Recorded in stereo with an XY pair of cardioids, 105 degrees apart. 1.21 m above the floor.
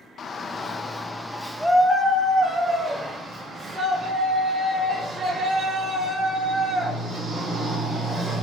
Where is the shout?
45° left, 0.8 m; by 8.4 s 50° right, 4 m.